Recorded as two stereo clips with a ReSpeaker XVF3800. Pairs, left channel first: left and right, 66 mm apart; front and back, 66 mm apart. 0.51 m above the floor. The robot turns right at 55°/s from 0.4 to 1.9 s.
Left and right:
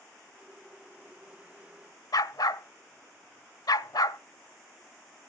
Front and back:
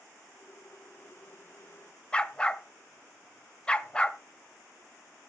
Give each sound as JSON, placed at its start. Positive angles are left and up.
{"t": 2.1, "sound": "a dog barking", "azimuth_deg": 75, "distance_m": 0.6}